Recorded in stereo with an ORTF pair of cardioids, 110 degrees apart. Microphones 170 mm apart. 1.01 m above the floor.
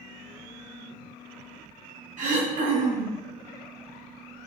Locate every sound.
2.2 s throat clearing: 55° right, 0.6 m